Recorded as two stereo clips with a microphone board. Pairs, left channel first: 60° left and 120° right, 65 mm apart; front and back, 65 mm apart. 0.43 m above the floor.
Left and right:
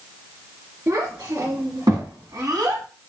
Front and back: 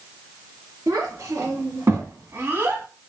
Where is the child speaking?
135° right, 2.5 m; by 2.9 s 120° right, 1.6 m.